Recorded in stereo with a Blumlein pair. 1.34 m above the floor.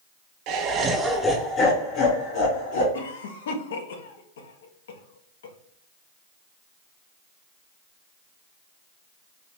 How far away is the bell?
I don't hear a bell.